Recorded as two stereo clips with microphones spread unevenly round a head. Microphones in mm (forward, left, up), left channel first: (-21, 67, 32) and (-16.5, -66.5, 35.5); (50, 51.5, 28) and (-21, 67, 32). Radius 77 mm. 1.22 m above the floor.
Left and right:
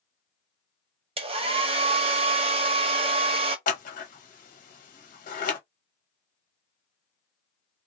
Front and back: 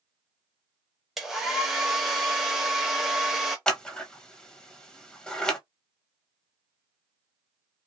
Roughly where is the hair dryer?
Right.